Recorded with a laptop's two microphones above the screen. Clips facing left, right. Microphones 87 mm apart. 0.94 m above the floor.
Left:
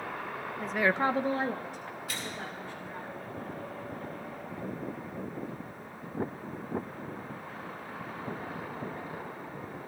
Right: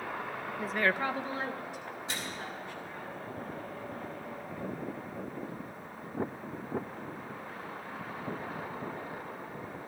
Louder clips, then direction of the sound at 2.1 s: Even; 25° right (ahead or behind).